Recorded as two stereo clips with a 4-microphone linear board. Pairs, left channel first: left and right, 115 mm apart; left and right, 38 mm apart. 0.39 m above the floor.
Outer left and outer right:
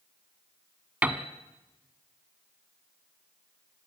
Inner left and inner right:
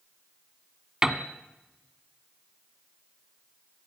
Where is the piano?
15° right (ahead or behind), 1.4 m.